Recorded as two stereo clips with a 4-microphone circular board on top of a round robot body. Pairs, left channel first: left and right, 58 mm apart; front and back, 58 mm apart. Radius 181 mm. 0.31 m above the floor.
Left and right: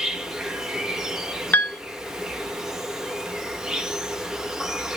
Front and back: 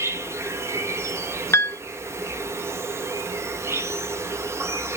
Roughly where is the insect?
Behind.